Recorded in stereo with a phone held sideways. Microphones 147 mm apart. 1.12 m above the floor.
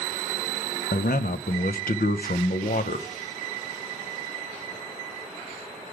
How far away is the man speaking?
About 0.6 m.